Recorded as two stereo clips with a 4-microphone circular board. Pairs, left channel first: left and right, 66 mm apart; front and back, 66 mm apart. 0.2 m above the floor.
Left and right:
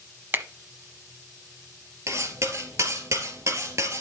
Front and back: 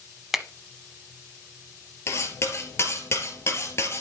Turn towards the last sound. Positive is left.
turn(degrees=-50)